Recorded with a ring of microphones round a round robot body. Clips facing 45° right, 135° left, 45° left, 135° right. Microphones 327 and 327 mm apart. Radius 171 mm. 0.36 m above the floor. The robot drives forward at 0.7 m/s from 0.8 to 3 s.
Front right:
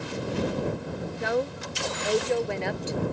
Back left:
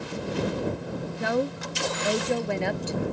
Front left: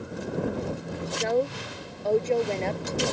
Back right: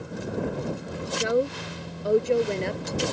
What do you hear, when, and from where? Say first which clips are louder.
1.2 s a woman speaking: back left 1 dB, back right 1 dB; 145° left; by 3.1 s 150° left